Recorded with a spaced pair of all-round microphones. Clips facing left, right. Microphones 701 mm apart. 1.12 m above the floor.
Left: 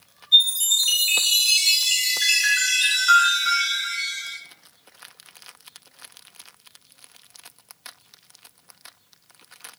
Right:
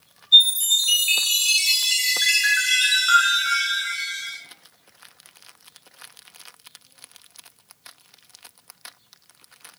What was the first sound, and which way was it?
A chime, 35° left (ahead or behind).